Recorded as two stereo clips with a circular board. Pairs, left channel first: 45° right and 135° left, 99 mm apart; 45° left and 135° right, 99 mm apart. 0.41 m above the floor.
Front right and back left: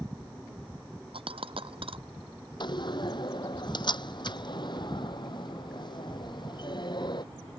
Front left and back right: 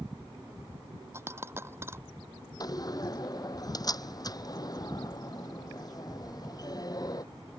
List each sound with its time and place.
1.1 s a dropped coin: 160° left
2.6 s a door slam: 5° right